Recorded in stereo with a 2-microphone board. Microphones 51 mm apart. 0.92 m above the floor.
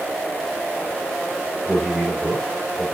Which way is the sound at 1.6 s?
10° right (ahead or behind).